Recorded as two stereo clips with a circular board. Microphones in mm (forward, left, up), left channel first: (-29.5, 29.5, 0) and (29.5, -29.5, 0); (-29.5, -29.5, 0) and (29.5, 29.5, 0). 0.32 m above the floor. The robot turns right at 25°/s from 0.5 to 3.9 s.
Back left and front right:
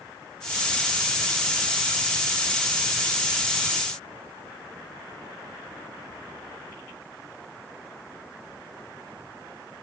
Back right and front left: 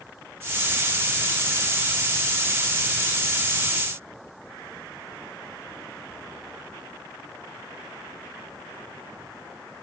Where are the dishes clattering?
I don't hear dishes clattering.